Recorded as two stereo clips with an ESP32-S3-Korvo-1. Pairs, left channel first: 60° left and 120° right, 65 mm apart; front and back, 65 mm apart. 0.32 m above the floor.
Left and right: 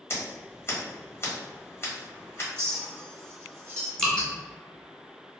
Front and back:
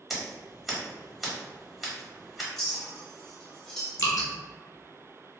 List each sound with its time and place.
0.1 s scissors: 90° left, 1.2 m
2.6 s a clink: 80° right, 0.9 m
4.0 s dripping: 20° right, 0.8 m